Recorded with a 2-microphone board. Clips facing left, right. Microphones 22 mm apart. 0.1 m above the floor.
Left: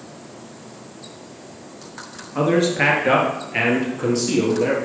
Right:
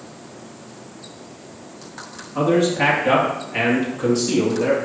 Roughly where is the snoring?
No snoring in this recording.